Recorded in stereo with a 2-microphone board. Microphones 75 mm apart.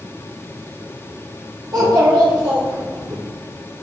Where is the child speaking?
65° right (ahead or behind), 3.5 m; by 3.2 s 75° right (ahead or behind), 2 m.